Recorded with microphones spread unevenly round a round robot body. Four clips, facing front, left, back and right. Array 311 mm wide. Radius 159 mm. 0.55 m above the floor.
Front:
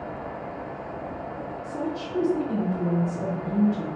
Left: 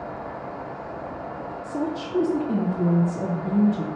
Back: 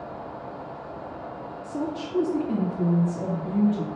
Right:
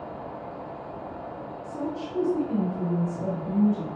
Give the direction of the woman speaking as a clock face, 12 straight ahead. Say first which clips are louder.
Left 4 dB, back 1 dB; 8 o'clock.